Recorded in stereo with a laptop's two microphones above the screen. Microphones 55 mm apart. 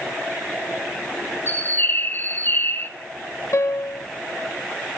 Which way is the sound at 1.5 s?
40° left (ahead or behind).